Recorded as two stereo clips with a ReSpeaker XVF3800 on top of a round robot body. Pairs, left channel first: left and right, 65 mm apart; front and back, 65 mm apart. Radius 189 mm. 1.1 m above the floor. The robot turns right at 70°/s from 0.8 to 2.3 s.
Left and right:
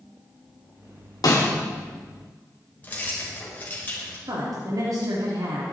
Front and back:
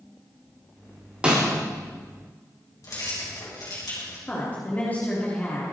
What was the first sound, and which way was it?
A snare drum, 105° left.